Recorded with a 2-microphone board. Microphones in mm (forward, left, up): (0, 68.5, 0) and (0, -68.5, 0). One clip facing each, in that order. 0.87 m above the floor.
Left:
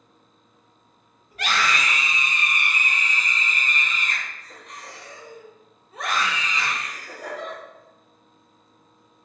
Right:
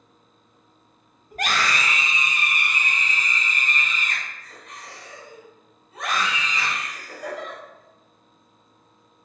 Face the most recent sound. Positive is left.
turn(degrees=55)  # may be behind; listen again after turning